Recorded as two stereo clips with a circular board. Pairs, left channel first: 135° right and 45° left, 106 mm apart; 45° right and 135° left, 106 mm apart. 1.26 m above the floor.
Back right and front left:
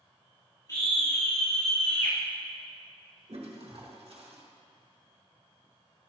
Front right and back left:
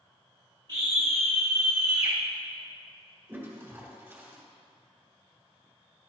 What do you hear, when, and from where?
0.7 s a scream: 170° left, 3 m; by 2.2 s 170° right, 1.1 m
3.3 s a toilet flushing: 70° left, 1.8 m